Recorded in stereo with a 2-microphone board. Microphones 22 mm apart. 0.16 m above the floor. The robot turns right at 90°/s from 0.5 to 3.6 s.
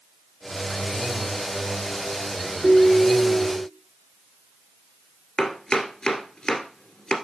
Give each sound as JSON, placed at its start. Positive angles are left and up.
{"t": 2.6, "sound": "a ringtone", "azimuth_deg": -20, "distance_m": 3.0}
{"t": 5.4, "sound": "chopping", "side_deg": 35, "distance_m": 1.7}